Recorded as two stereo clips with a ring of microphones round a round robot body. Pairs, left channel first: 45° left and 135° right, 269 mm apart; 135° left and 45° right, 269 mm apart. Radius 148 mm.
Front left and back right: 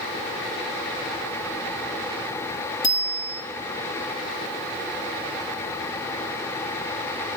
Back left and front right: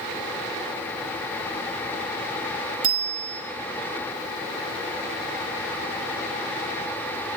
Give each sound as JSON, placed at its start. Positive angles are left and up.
{"t": 2.8, "sound": "a bicycle bell", "azimuth_deg": -35, "distance_m": 10.0}